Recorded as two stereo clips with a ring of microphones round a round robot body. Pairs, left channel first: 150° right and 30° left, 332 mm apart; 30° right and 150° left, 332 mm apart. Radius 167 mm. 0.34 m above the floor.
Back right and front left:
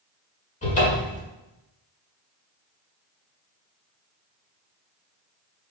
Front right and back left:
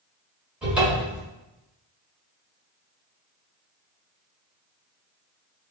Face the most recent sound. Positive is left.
turn(degrees=-125)